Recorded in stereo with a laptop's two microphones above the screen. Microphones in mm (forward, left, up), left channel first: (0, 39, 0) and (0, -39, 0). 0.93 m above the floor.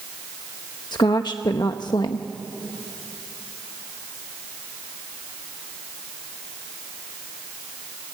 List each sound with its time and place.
0.9 s a woman speaking: 65° left (ahead or behind), 0.8 m